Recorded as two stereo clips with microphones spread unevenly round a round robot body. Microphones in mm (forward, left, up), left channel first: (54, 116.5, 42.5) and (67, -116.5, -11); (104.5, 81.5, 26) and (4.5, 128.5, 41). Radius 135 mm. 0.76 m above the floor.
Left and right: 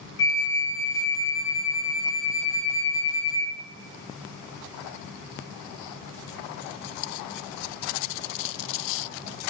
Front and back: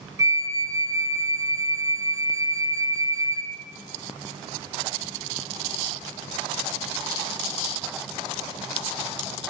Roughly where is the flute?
Left.